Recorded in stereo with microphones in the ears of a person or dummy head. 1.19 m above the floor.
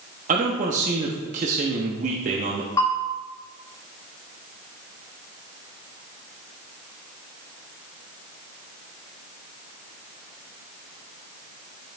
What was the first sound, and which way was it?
A man speaking, 35° right (ahead or behind).